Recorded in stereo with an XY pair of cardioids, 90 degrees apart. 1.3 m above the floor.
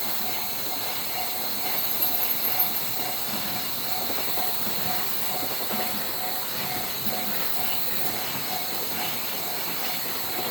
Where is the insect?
15° right, 1.2 m.